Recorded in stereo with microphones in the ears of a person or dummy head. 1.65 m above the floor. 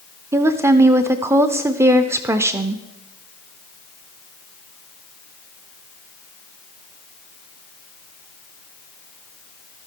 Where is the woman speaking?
10° right (ahead or behind), 0.5 m.